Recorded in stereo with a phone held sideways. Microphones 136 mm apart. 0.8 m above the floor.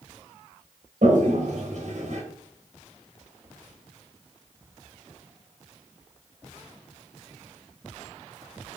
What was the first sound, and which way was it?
A toilet flushing, 65° right (ahead or behind).